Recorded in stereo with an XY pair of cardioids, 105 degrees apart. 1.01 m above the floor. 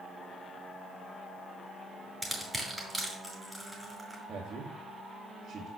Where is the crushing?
10° right, 5.5 m.